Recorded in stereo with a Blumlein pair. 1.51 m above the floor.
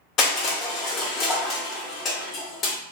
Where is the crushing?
30° left, 0.9 m.